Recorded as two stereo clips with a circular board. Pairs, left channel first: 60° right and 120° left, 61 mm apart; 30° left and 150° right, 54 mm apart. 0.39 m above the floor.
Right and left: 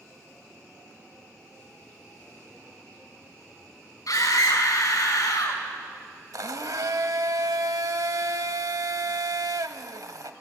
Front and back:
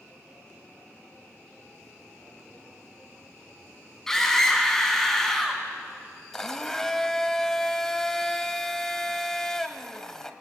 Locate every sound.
4.1 s a scream: 50° right, 4 m
6.3 s a blender: 110° left, 1.0 m